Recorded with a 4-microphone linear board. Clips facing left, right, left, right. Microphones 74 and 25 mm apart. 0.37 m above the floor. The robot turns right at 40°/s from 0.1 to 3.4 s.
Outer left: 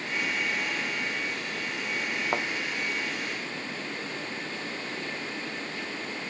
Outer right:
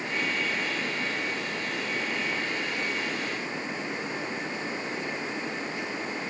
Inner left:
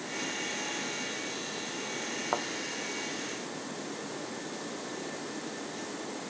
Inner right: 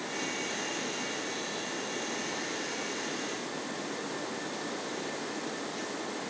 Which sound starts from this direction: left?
A thud, at 2.3 s.